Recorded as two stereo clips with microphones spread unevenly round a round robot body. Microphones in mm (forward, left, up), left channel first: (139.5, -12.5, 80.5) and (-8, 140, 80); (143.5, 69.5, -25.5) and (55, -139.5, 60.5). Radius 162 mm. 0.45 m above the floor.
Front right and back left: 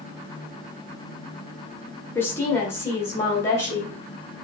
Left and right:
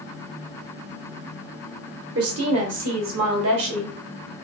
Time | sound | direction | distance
2.1 | a woman speaking | 120° right | 1.0 m